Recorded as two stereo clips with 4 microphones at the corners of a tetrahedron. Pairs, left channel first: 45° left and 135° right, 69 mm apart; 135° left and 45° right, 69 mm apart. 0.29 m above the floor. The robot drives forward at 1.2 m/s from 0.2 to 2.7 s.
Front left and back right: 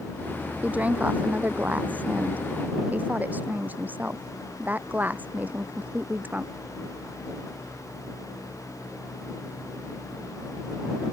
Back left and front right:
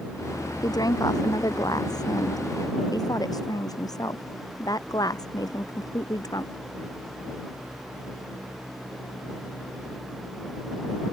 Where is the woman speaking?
155° left; by 6.5 s 160° left.